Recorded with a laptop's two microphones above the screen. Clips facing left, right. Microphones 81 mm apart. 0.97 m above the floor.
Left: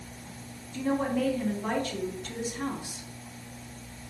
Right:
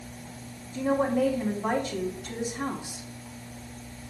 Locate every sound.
0.7 s a woman speaking: 20° right (ahead or behind), 2 m